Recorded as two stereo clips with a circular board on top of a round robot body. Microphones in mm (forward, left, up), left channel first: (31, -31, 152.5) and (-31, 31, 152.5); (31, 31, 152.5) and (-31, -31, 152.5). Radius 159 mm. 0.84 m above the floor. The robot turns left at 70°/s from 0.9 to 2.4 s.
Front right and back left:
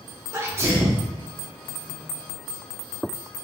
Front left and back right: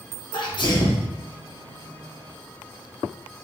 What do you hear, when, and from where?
0.3 s a sneeze: 75° left, 1.8 m; by 1.1 s 60° left, 1.8 m